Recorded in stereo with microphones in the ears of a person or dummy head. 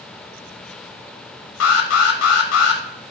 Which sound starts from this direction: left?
An alarm, at 1.6 s.